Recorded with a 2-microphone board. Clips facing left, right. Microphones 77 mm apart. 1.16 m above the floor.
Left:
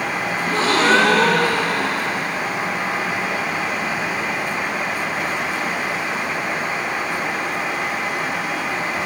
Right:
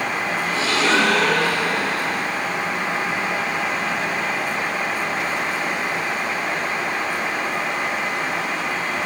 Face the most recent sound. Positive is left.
turn(degrees=45)  # may be behind; listen again after turning